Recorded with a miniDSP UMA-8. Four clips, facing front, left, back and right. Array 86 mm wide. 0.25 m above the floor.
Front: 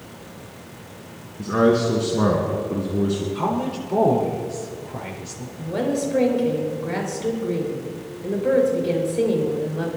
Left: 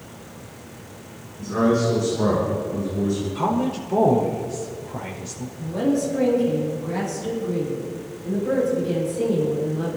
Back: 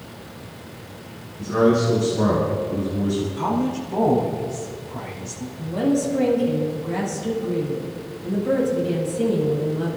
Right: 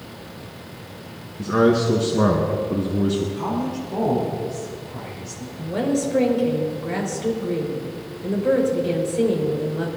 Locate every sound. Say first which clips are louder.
1.4 s a man speaking: right 2 dB, even; 60° right, 2.5 m
3.4 s a woman speaking: left 2 dB, back 1 dB; 35° left, 5.5 m
5.6 s a woman speaking: even, back 2 dB; 40° right, 5 m